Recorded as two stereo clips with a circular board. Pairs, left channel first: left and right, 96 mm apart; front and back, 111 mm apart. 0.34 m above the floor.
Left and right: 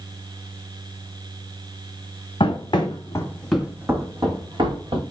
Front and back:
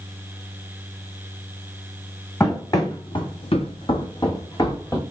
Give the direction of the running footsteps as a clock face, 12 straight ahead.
10 o'clock.